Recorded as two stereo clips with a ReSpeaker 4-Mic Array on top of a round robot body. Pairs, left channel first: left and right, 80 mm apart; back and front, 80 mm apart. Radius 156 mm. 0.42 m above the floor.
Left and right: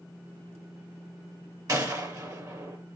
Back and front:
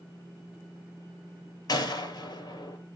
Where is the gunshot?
140° right, 7 m.